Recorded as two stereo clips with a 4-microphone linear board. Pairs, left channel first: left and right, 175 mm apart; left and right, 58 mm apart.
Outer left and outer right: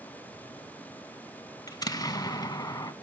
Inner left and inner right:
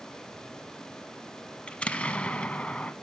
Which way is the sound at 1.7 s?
20° left (ahead or behind).